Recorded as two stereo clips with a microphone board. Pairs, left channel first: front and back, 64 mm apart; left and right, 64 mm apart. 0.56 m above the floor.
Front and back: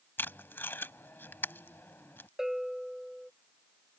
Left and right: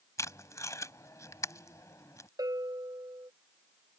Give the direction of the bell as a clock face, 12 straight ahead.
3 o'clock.